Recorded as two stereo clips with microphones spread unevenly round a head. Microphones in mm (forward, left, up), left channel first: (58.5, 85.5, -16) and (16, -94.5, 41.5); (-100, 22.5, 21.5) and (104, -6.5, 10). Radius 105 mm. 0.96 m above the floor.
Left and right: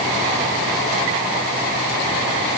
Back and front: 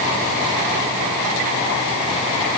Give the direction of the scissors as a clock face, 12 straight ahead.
I don't hear scissors.